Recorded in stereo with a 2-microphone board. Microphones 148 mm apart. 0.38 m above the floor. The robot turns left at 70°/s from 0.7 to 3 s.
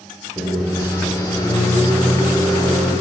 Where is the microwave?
10° right (ahead or behind), 0.7 m; by 2.9 s 15° left (ahead or behind), 0.7 m.